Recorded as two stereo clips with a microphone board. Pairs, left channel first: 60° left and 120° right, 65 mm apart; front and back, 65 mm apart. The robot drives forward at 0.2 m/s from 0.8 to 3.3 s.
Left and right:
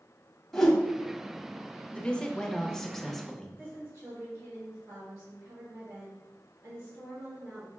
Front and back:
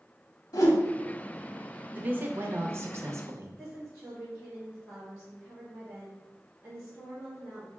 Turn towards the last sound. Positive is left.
turn(degrees=-115)